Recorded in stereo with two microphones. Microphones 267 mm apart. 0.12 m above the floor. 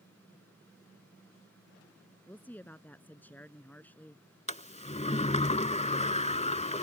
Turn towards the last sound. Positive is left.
turn(degrees=25)  # may be behind; listen again after turning